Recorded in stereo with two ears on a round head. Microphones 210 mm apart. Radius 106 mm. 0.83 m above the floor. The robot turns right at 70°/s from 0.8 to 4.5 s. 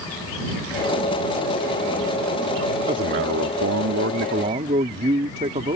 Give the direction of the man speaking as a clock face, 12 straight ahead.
5 o'clock.